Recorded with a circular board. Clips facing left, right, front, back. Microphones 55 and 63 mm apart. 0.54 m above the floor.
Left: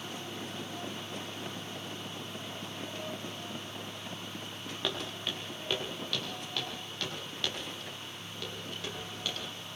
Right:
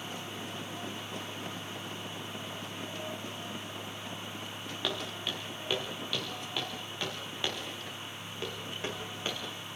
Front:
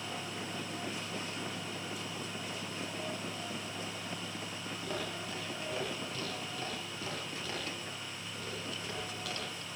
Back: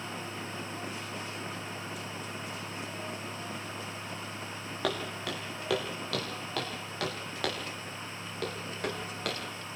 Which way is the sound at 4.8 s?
175° left.